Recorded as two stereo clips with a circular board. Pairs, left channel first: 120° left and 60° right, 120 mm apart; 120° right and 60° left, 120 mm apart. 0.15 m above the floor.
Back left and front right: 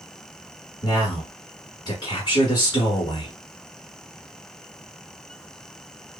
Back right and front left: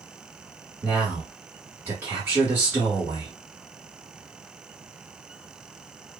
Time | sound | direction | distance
0.8 | a man speaking | 115° left | 1.2 m